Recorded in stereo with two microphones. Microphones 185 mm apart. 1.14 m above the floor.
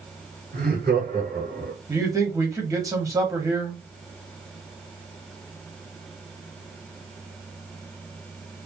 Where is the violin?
No violin in this recording.